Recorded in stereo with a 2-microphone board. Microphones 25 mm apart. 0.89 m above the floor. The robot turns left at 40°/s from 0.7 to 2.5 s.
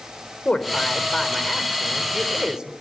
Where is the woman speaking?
40° left, 4 m; by 2.7 s 30° right, 4 m.